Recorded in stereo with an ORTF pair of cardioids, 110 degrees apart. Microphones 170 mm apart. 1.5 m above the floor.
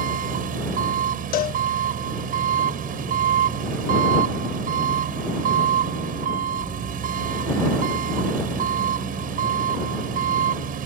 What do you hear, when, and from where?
0.0 s an engine running: 55° right
1.3 s a cowbell: 65° left